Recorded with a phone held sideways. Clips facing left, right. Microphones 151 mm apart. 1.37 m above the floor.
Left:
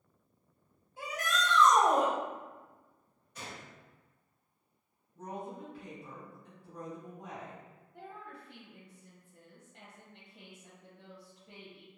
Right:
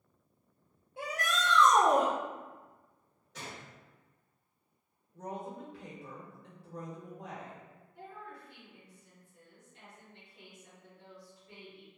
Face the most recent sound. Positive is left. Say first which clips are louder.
# even
turn(degrees=65)  # may be behind; listen again after turning